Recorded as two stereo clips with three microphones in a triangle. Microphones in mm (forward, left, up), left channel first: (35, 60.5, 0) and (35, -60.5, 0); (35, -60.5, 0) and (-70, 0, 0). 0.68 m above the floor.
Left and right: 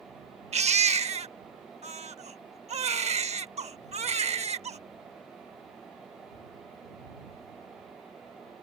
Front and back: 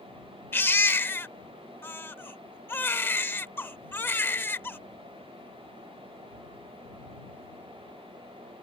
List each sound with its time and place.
0.5 s a baby crying: 105° right